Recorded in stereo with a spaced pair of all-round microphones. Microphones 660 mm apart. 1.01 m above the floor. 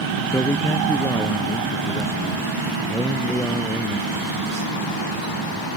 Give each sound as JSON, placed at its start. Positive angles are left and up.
{"t": 0.3, "sound": "a man speaking", "side_deg": 5}